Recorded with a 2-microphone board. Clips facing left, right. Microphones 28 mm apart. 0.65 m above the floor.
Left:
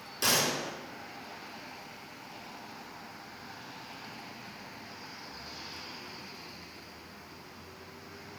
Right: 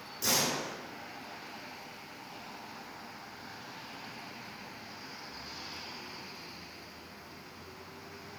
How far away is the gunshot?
About 3 m.